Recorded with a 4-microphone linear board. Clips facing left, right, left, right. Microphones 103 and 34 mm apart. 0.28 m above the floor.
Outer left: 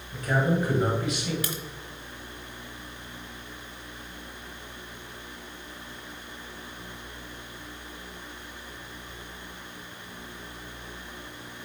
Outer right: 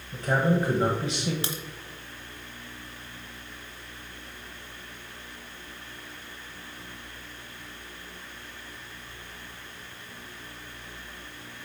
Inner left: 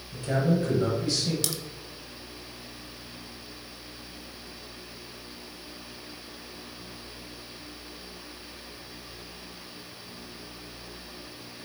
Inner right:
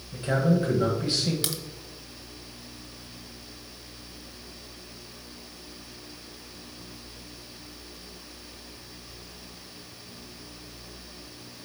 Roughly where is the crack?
Right.